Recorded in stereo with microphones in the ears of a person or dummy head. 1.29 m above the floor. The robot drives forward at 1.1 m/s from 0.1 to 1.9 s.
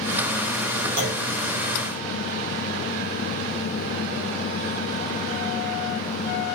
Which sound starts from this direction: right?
A clunk, at 1.0 s.